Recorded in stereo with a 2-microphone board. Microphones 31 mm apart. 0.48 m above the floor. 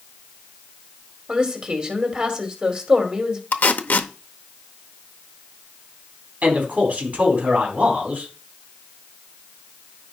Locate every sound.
1.3 s a woman speaking: 30° right (ahead or behind), 2.0 m
3.5 s tape being pulled: 65° left (ahead or behind), 0.7 m
6.4 s a man speaking: 50° right (ahead or behind), 3.5 m